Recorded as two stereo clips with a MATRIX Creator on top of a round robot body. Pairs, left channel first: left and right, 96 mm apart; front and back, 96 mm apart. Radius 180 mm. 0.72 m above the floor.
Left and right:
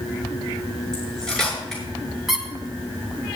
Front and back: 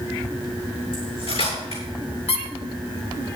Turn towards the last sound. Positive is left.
turn(degrees=0)